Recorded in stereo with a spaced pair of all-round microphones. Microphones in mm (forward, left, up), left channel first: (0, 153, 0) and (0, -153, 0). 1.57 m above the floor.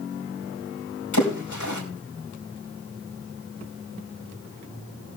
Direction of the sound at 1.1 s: 70° left (ahead or behind).